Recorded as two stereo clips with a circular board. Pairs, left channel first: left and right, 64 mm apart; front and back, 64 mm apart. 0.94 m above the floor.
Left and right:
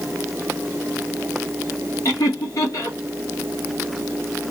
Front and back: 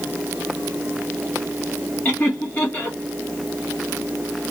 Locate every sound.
2.0 s laughter: 60° left, 1.7 m